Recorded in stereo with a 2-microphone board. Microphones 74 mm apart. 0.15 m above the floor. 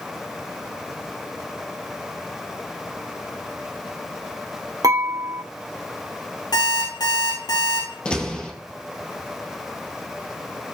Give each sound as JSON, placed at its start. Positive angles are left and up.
{"t": 4.8, "sound": "dishes clattering", "side_deg": -60, "distance_m": 2.5}
{"t": 6.5, "sound": "an alarm clock", "side_deg": 75, "distance_m": 5.0}
{"t": 8.1, "sound": "a door slam", "side_deg": 15, "distance_m": 2.5}